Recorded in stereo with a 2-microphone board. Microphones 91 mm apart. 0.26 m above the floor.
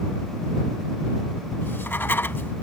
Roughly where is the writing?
Left.